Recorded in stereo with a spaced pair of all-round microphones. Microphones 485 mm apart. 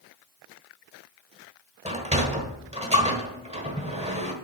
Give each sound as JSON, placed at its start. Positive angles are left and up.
{"t": 1.9, "sound": "a sliding door", "side_deg": -15, "distance_m": 1.2}